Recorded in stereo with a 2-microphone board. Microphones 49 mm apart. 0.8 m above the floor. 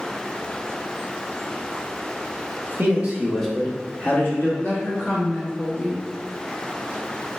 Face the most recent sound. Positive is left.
turn(degrees=35)  # may be behind; listen again after turning